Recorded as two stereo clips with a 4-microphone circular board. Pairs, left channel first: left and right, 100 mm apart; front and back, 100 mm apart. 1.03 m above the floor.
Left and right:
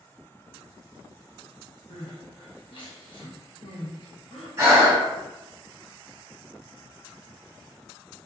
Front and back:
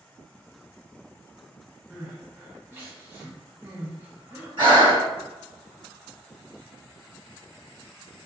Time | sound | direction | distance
1.9 | crying | 115° left | 1.0 m
4.6 | breathing | 145° right | 1.2 m